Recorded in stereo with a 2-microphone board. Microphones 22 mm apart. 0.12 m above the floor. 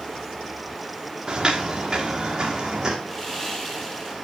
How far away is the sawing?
About 3.5 m.